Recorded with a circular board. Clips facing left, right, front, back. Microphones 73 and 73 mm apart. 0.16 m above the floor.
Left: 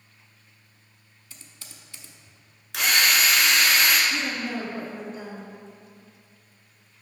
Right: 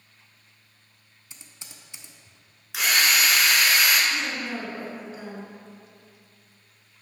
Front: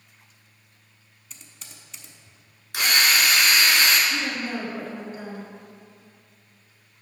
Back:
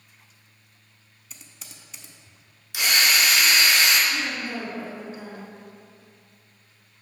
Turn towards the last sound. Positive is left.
turn(degrees=-5)